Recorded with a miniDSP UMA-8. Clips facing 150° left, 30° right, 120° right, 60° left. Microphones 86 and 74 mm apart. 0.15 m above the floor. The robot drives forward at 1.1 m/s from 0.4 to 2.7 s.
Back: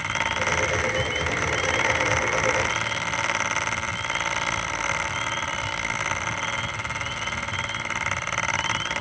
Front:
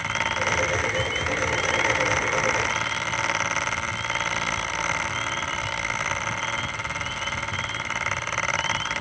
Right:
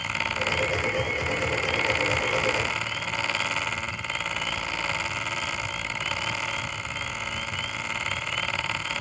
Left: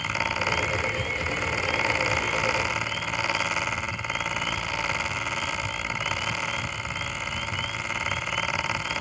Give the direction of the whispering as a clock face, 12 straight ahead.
No whispering in this recording.